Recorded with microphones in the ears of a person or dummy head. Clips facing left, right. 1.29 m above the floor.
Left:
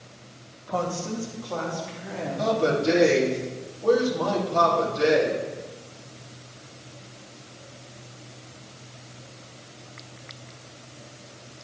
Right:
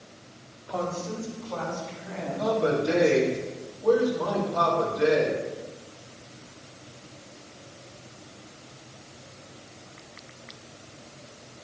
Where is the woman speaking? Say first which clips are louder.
Left 2 dB; 55° left (ahead or behind), 2 m; by 3.4 s 40° left (ahead or behind), 3.5 m.